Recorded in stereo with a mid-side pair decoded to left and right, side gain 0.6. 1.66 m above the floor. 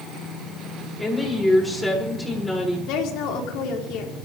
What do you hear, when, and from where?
1.0 s a woman speaking: 10° left, 7 m
2.9 s a woman speaking: 65° left, 4 m